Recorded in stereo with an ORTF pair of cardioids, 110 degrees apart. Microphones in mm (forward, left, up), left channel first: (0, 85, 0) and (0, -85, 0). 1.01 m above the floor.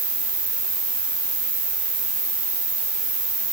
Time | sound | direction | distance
0.0 | an insect | 60° right | 4.5 m